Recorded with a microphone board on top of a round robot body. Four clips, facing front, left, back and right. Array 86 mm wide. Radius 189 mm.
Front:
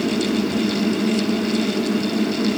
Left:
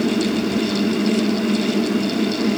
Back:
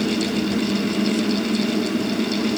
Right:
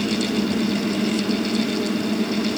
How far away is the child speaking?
No child speaking in this recording.